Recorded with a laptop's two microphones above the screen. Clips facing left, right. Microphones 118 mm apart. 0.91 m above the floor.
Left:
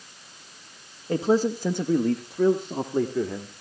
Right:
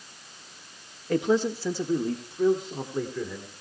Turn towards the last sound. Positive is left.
turn(degrees=55)  # may be behind; listen again after turning